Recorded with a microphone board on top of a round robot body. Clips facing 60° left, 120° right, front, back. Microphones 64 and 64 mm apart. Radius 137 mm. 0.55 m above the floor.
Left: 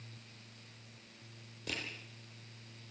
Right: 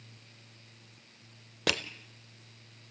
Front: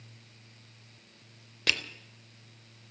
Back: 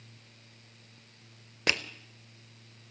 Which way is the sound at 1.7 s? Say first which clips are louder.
Right 10 dB, back 1 dB; 110° right.